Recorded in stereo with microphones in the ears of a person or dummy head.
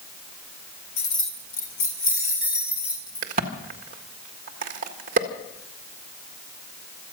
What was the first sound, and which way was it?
Keys jangling, 80° left.